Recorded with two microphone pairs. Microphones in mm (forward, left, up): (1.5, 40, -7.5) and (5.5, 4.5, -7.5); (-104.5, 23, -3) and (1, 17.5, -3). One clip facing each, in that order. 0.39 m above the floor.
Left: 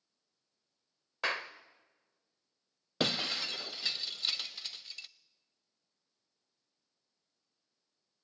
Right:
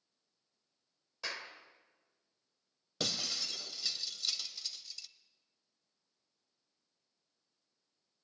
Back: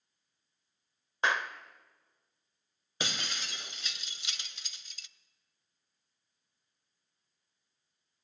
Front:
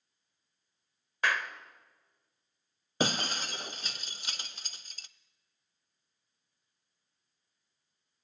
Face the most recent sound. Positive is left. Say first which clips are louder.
# left 5 dB, front 8 dB
turn(degrees=50)